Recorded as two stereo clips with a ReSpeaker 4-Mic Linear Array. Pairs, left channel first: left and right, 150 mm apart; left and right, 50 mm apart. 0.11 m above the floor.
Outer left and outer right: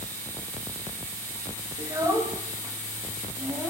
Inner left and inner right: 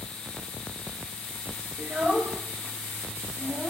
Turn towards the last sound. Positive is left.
turn(degrees=-10)  # may be behind; listen again after turning